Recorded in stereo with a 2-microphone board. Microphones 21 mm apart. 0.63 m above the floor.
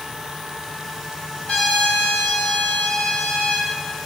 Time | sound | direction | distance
1.5 | a trumpet | 55° left (ahead or behind) | 6.5 m